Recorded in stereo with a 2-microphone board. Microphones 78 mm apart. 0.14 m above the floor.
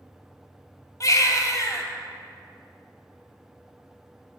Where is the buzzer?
No buzzer in this recording.